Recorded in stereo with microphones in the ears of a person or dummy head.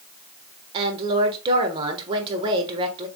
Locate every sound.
0.7 s a woman speaking: 25° right (ahead or behind), 1.3 m